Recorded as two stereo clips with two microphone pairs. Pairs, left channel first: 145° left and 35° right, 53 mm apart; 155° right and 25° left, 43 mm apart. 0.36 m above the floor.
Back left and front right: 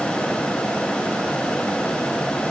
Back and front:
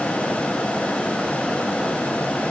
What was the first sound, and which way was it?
Only background noise.